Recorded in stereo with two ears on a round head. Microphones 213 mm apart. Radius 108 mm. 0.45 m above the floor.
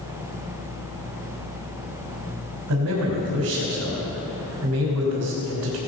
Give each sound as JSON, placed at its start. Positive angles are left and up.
{"t": 2.7, "sound": "a man speaking", "side_deg": -70, "distance_m": 3.0}